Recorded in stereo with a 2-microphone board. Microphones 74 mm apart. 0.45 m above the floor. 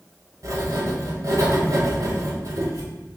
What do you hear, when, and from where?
0.4 s writing: 50° right (ahead or behind), 0.9 m